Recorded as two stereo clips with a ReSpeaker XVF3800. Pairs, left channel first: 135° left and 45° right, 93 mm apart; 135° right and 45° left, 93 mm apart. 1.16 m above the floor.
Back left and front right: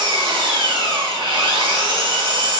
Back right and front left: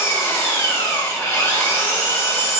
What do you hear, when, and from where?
0.0 s an engine running: 70° right, 1.1 m